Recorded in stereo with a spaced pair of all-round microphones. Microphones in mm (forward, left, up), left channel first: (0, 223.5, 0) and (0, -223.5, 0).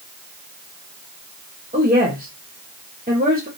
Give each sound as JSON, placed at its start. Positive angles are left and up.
{"t": 1.7, "sound": "a woman speaking", "side_deg": -20, "distance_m": 0.9}